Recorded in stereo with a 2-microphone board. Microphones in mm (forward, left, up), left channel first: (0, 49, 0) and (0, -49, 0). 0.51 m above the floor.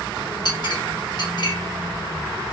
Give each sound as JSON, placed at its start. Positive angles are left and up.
{"t": 0.5, "sound": "a clink", "side_deg": 45, "distance_m": 1.1}